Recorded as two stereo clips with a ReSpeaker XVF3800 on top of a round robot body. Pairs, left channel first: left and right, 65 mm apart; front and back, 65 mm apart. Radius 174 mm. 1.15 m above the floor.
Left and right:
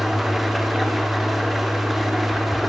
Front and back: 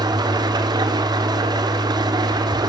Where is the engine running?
Straight behind, 1.9 m.